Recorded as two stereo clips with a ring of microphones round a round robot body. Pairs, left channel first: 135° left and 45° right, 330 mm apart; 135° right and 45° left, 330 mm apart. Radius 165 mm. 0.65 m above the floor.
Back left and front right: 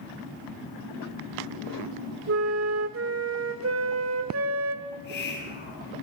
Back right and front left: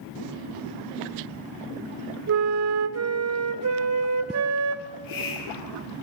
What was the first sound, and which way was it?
A flute, 5° left.